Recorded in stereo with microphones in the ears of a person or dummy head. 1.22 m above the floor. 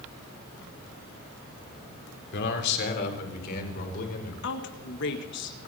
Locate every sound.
2.3 s a man speaking: 65° left (ahead or behind), 3.5 m; by 4.3 s 50° left (ahead or behind), 4.5 m
4.4 s a woman speaking: 60° left (ahead or behind), 1.9 m